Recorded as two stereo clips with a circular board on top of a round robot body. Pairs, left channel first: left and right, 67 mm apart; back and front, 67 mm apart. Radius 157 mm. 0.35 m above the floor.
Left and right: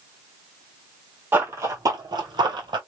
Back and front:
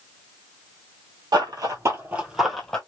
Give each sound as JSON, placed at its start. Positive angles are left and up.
{"t": 1.3, "sound": "running footsteps", "azimuth_deg": -25, "distance_m": 1.0}